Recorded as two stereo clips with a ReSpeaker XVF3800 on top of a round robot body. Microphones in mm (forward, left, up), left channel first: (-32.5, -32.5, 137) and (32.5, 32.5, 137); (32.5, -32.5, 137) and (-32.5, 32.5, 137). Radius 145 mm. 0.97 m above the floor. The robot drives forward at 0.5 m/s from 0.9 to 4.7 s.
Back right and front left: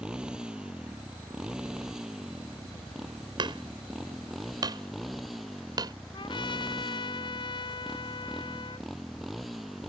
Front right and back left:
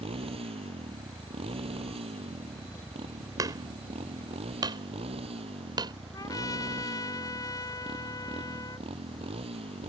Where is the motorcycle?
125° left; by 9.9 s 135° left.